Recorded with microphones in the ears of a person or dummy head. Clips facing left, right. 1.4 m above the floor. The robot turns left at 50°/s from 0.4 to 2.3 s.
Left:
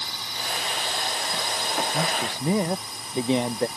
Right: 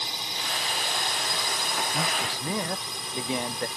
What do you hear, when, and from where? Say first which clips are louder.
0.0 s a drone: even; 25° right; by 3.8 s 120° right
1.9 s a man speaking: left 3 dB; 10° left (ahead or behind); by 3.7 s 25° left (ahead or behind)